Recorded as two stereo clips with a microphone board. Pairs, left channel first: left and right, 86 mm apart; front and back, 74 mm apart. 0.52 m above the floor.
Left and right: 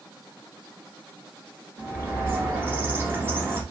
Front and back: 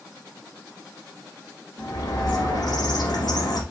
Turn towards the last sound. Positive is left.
turn(degrees=-30)